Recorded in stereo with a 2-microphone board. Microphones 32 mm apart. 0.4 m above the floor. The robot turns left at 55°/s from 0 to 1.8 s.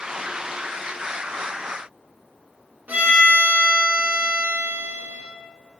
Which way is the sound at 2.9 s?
75° right (ahead or behind).